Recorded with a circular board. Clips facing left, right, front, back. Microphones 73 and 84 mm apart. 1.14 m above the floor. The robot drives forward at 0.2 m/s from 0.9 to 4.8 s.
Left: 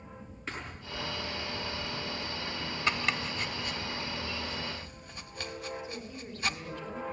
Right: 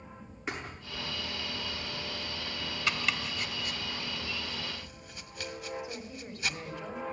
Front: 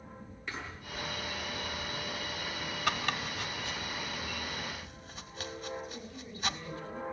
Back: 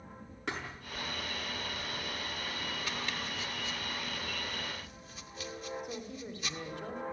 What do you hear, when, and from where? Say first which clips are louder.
0.5 s a thud: right 2 dB, back 3 dB; 165° right, 8 m
2.9 s chopping: left 2 dB, front 5 dB; 30° left, 1.9 m; by 6.6 s 40° left, 1.6 m
5.8 s a woman speaking: even, back 3 dB; 165° right, 4 m